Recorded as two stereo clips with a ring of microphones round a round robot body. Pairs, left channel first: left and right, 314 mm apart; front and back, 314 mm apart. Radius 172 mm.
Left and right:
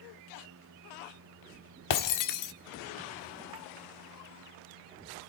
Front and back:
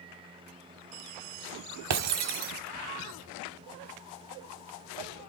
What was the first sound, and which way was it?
Breaking glass, 130° left.